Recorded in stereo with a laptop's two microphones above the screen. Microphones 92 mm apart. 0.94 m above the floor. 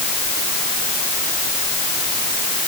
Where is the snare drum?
I don't hear a snare drum.